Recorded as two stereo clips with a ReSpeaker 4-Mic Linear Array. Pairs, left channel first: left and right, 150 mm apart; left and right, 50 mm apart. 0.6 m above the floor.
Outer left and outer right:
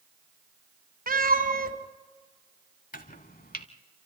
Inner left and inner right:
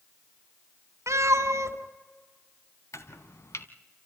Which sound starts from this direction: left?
Chopping, at 2.9 s.